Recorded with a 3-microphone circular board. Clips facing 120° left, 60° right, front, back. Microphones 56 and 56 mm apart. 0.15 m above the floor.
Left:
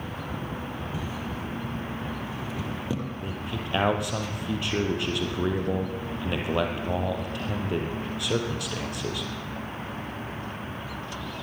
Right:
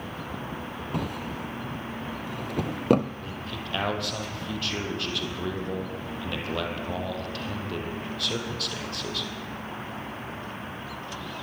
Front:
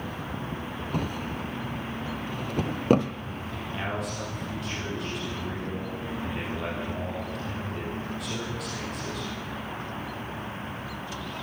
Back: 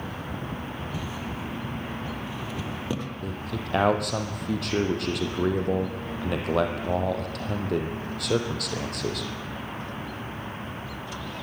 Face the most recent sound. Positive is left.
turn(degrees=-170)